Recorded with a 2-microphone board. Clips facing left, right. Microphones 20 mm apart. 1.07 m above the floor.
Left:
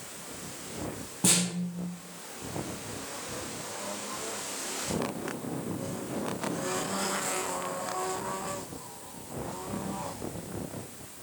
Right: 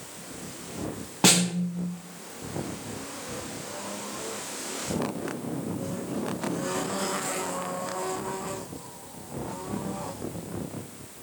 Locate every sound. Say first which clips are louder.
1.2 s a snare drum: right 6 dB; 55° right (ahead or behind), 1.5 m